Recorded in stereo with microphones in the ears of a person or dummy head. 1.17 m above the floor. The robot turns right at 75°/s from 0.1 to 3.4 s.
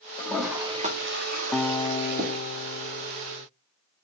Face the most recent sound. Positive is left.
turn(degrees=150)